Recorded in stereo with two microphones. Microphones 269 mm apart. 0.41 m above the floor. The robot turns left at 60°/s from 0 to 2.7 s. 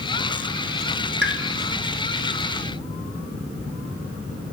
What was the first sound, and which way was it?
A pop, 45° right (ahead or behind).